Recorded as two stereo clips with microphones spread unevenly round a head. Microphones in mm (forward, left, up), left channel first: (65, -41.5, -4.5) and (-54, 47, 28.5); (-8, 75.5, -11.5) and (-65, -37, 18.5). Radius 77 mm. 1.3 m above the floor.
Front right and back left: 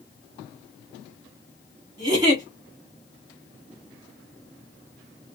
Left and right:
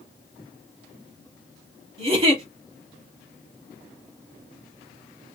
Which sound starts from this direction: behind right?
A giggle, at 2.0 s.